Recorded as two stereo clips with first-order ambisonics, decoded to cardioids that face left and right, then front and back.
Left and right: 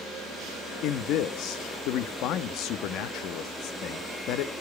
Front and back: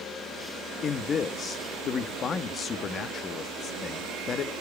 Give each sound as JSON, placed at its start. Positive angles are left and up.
{"t": 0.8, "sound": "a man speaking", "azimuth_deg": 60, "distance_m": 1.1}